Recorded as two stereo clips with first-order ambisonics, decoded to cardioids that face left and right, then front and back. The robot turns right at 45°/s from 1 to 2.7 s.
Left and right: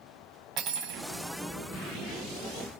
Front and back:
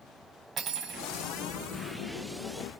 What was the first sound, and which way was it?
Cutlery clinking, 125° right.